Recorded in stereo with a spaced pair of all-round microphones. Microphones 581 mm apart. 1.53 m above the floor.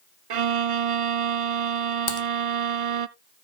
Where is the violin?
65° right (ahead or behind), 0.6 m.